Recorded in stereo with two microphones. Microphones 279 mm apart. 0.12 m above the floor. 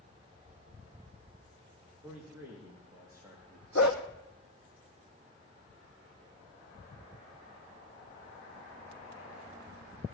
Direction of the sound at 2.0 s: 5° right (ahead or behind).